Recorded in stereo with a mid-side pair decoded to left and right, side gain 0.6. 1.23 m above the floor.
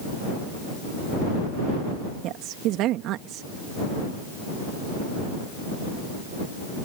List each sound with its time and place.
2.2 s a woman speaking: 65° right